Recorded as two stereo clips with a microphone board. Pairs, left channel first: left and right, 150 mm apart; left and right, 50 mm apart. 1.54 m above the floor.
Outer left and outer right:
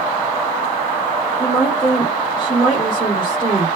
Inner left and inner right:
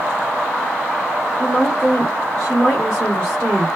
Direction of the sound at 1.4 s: 35° left (ahead or behind).